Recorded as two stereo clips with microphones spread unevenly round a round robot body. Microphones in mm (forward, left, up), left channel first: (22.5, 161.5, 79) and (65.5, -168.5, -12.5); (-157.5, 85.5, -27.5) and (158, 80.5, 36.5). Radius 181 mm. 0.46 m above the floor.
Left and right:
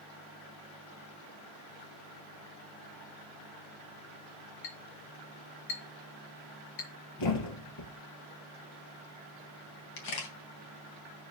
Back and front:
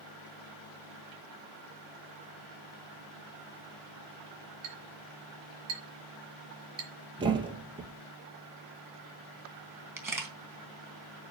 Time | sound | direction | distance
4.6 | a clink | 75° left | 6 m
7.2 | a thud | 75° left | 3 m
10.0 | a camera shutter | 85° left | 3.5 m